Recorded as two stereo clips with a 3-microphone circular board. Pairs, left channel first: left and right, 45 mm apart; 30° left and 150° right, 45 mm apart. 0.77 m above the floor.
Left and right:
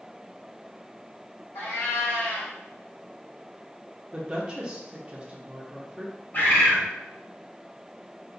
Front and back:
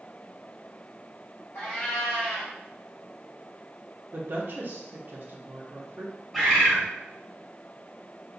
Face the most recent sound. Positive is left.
turn(degrees=125)